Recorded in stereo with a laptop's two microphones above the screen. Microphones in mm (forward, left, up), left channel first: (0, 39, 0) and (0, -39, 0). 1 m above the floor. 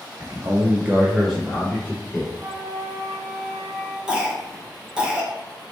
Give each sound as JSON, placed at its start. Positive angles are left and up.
{"t": 0.2, "sound": "a man speaking", "side_deg": -35, "distance_m": 1.0}
{"t": 2.3, "sound": "a flute", "side_deg": -60, "distance_m": 1.0}
{"t": 4.1, "sound": "a cough", "side_deg": -10, "distance_m": 0.7}